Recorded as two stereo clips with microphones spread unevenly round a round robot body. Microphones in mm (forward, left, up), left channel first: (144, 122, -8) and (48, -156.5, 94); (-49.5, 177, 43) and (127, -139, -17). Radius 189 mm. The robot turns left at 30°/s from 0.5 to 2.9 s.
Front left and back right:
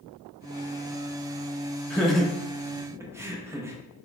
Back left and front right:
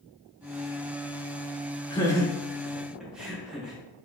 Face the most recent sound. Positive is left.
turn(degrees=5)